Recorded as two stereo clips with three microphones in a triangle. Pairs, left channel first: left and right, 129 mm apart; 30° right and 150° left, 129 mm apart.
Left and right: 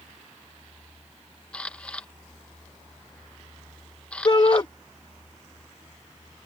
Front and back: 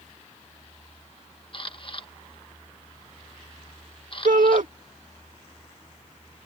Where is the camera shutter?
10° left.